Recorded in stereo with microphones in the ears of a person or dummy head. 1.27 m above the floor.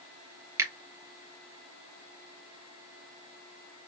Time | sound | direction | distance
0.6 | a finger snap | 15° right (ahead or behind) | 1.0 m